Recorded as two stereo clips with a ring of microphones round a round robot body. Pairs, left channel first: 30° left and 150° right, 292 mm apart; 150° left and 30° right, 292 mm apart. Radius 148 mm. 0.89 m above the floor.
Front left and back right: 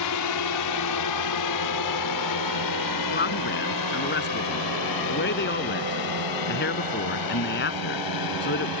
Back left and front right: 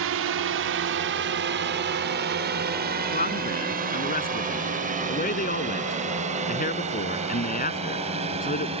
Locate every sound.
0.0 s a drone: 10° left; by 8.8 s 40° left
3.1 s a man speaking: 85° left